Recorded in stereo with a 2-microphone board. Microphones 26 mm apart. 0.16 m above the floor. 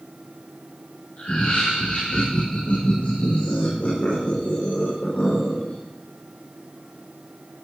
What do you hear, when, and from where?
1.2 s laughter: 60° left (ahead or behind), 7 m